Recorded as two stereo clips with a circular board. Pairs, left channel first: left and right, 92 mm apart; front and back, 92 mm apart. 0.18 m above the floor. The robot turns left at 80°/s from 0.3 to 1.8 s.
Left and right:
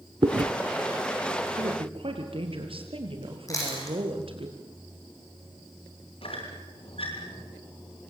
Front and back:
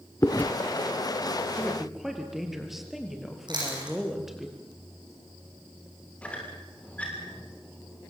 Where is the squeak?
80° left, 7 m.